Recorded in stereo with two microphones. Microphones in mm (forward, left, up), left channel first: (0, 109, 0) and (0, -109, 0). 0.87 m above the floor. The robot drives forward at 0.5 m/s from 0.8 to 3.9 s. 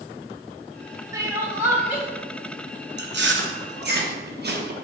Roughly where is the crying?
Centre.